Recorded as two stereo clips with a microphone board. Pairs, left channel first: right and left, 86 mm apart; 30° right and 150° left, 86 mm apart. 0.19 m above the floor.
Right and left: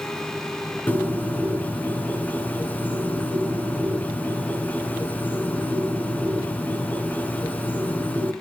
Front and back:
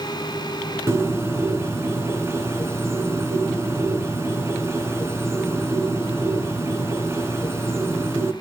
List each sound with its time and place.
0.9 s a bird: 160° right, 2 m